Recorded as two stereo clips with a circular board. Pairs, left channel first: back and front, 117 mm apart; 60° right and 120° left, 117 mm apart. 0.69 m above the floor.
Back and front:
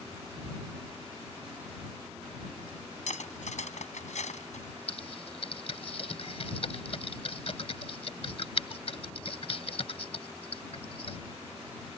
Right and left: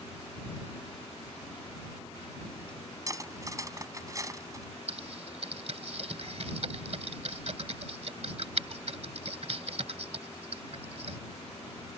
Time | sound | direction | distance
0.5 | ticking | 95° left | ?
3.1 | cutlery clinking | straight behind | ?
4.9 | typing on a keyboard | 145° left | ?